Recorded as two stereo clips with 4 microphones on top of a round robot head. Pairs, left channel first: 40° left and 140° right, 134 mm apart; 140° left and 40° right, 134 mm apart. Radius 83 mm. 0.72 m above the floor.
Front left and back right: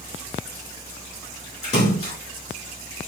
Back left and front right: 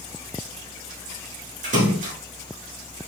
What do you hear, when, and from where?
1.6 s a splash: 5° right, 4 m